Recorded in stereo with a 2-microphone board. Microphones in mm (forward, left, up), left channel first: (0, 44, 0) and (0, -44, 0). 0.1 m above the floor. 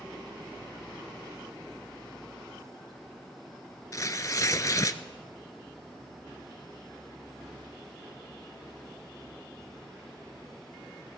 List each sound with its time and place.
3.9 s tearing paper: 40° left (ahead or behind), 0.6 m